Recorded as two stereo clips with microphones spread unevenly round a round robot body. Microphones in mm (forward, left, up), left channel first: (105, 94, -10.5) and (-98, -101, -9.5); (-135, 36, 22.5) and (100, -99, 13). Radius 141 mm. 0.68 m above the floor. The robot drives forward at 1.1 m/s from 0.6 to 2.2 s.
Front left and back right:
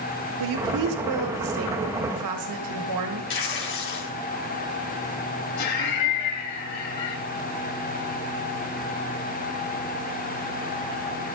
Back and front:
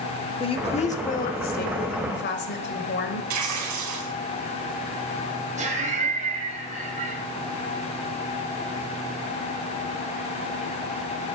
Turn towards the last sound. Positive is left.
turn(degrees=35)